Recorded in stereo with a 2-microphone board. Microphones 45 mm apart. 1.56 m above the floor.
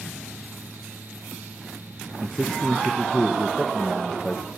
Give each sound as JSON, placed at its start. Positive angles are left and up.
{"t": 2.2, "sound": "a man speaking", "side_deg": 5, "distance_m": 1.2}